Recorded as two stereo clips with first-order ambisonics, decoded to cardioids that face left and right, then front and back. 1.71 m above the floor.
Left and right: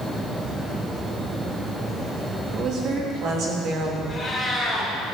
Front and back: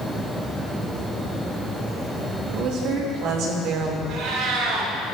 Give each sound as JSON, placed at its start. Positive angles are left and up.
{"t": 2.5, "sound": "a woman speaking", "azimuth_deg": -140, "distance_m": 3.5}
{"t": 4.1, "sound": "a cat meowing", "azimuth_deg": 175, "distance_m": 4.0}